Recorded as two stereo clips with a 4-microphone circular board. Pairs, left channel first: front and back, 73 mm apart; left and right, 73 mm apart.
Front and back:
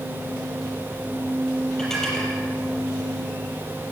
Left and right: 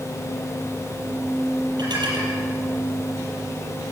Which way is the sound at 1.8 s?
85° right.